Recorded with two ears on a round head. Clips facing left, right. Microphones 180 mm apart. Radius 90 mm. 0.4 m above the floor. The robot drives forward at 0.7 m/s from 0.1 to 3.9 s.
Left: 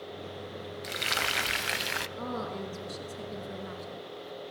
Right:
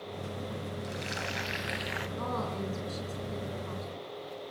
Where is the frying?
70° left (ahead or behind), 1.2 m; by 2.1 s 55° left (ahead or behind), 1.4 m.